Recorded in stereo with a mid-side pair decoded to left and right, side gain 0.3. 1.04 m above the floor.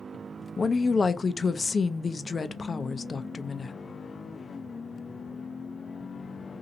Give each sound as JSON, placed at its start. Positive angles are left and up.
{"t": 0.6, "sound": "a woman speaking", "azimuth_deg": 50, "distance_m": 0.5}